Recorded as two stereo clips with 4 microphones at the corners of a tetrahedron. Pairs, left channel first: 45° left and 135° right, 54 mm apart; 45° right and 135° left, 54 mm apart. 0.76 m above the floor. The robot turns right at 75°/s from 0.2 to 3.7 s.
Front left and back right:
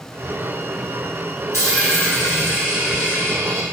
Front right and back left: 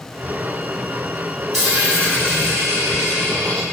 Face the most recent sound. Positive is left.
turn(degrees=-145)